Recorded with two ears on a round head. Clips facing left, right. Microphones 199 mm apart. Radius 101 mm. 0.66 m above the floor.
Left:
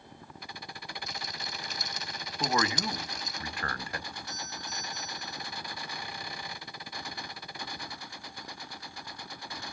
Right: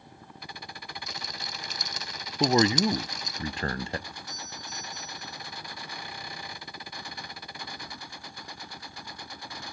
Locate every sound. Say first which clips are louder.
1.1 s a rattle: even; 55° right (ahead or behind), 0.5 m
2.4 s a man speaking: right 8 dB; 25° right (ahead or behind), 0.6 m
4.1 s a doorbell: left 1 dB; 75° right (ahead or behind), 9.5 m